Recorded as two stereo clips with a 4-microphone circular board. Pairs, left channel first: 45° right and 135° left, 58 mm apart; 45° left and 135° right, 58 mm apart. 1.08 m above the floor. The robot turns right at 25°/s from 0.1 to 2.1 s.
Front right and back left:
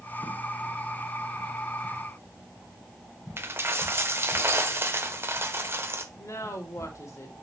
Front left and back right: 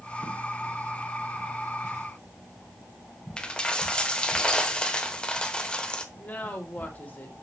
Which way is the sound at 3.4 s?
110° left.